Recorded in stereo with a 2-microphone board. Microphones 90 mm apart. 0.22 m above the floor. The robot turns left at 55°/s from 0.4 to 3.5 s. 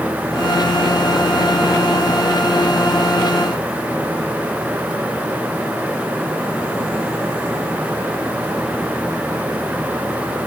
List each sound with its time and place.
Only background noise.